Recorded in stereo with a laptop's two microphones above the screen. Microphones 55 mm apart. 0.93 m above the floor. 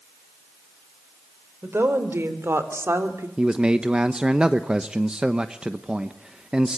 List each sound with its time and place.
1.6 s a woman speaking: 45° right (ahead or behind), 4 m; by 3.3 s 50° right (ahead or behind), 2.5 m
3.4 s a man speaking: 15° right (ahead or behind), 0.9 m